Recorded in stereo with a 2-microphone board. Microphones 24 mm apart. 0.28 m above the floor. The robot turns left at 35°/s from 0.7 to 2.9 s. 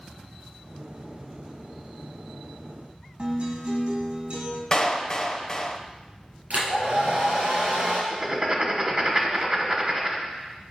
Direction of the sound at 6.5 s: 70° right (ahead or behind).